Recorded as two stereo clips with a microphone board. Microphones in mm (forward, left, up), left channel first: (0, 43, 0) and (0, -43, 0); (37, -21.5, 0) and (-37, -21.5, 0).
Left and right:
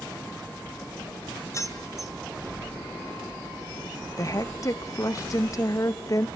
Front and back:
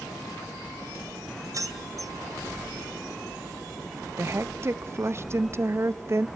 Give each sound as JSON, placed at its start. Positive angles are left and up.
{"t": 1.5, "sound": "keys jangling", "azimuth_deg": 140, "distance_m": 2.5}
{"t": 4.2, "sound": "a woman speaking", "azimuth_deg": 135, "distance_m": 0.7}